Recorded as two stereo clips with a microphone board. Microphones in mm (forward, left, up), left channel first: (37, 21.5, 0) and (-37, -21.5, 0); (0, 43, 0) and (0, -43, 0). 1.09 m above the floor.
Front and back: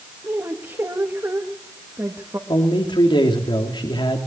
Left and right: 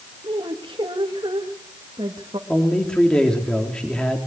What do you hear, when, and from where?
0.2 s a woman speaking: 95° right, 1.9 m
2.5 s a man speaking: 10° left, 3 m